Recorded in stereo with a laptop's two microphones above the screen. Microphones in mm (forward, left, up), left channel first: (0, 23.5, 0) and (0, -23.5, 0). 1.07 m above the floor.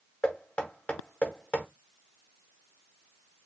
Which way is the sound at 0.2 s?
20° left (ahead or behind).